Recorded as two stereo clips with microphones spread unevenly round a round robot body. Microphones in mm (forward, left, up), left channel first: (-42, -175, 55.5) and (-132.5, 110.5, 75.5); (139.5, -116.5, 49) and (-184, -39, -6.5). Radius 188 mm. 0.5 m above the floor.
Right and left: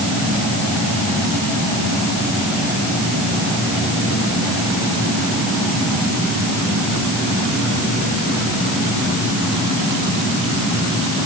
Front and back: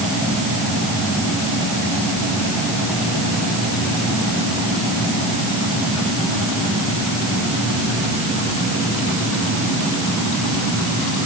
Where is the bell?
I don't hear a bell.